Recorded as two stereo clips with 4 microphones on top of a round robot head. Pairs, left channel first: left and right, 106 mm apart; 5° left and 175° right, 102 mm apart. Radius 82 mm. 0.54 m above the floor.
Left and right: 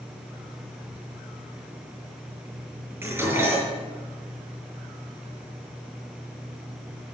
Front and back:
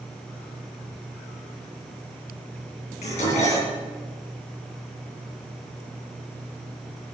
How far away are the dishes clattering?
About 6.5 m.